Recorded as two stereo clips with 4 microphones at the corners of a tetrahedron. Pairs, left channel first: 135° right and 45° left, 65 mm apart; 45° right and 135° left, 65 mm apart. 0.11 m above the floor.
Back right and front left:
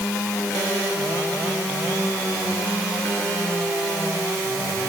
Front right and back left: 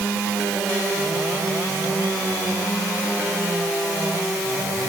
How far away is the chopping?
No chopping in this recording.